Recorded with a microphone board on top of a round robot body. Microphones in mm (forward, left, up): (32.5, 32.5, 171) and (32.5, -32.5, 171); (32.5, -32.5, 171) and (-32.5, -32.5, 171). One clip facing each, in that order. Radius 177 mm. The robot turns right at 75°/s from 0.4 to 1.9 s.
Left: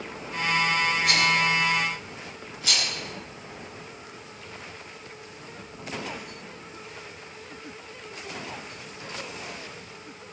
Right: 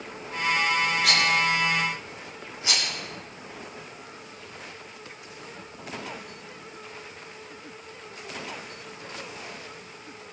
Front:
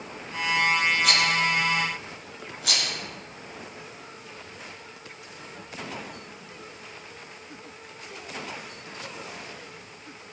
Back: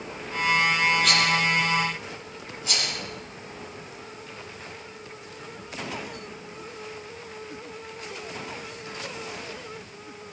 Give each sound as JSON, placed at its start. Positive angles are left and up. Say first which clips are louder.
{"t": 1.0, "sound": "a rattle", "louder": "even, back 1 dB", "azimuth_deg": -90, "distance_m": 4.0}